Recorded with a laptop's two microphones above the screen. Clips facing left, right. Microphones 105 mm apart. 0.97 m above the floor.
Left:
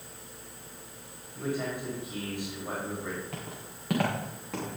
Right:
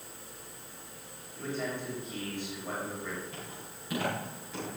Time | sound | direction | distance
1.3 | a man speaking | 15° left (ahead or behind) | 5 m
3.3 | footsteps | 65° left (ahead or behind) | 4 m